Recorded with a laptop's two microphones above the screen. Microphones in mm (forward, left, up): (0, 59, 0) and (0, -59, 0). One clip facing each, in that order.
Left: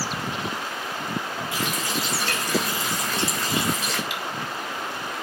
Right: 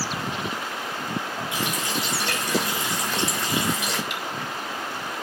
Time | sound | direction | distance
1.5 | a running tap | 20° right (ahead or behind) | 3.5 m
4.1 | cutlery clinking | 50° right (ahead or behind) | 1.5 m